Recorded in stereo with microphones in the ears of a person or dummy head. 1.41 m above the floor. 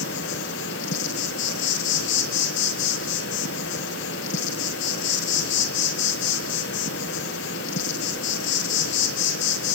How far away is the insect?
About 1.1 m.